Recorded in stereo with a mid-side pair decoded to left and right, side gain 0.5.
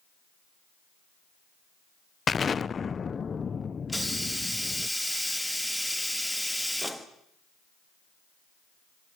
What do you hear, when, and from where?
2.3 s an explosion: 35° left, 0.6 m
3.9 s a hiss: straight ahead, 1.5 m